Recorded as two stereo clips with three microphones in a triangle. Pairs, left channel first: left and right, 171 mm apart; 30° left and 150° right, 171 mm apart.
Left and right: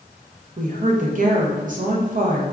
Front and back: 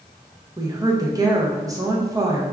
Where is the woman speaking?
85° right, 0.6 m.